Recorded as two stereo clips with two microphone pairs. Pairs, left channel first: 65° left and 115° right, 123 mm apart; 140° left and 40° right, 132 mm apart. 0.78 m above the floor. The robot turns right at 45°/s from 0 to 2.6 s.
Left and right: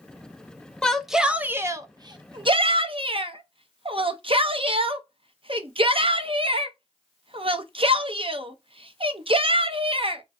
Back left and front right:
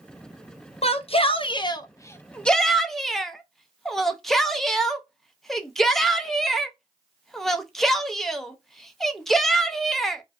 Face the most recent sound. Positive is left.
turn(degrees=-135)